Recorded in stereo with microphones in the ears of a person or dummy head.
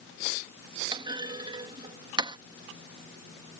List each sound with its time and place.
0.9 s a clunk: 15° right (ahead or behind)